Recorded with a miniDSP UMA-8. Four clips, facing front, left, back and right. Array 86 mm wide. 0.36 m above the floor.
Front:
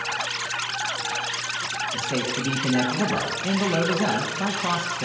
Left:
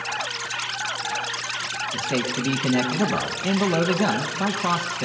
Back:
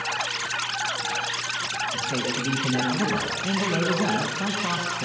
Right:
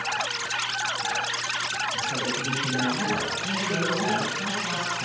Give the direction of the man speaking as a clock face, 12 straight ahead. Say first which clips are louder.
Left 3 dB, front 2 dB; 10 o'clock.